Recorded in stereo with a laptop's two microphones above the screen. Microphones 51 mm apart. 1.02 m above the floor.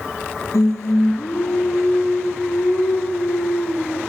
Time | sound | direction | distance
0.5 | singing | 75° left (ahead or behind) | 2.5 m